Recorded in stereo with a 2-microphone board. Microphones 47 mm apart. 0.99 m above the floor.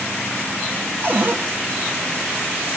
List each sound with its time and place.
1.0 s a cupboard door: 45° right (ahead or behind), 1.2 m